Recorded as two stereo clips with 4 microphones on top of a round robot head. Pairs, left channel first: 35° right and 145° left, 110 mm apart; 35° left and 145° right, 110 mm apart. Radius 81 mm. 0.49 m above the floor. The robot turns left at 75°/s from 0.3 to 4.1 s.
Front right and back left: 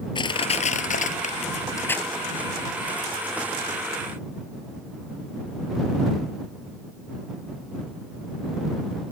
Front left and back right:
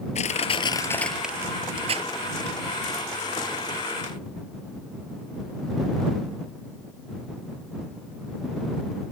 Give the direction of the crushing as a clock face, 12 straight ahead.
12 o'clock.